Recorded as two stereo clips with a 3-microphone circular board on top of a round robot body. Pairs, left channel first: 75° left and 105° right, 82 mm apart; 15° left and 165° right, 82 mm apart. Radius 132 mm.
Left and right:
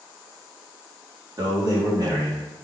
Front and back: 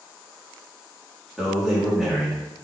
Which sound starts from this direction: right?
A man speaking, at 1.4 s.